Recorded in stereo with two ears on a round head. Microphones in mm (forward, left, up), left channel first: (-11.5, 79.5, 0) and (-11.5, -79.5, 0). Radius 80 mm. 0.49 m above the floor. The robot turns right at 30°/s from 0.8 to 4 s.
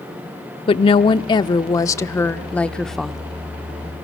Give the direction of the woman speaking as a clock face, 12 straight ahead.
8 o'clock.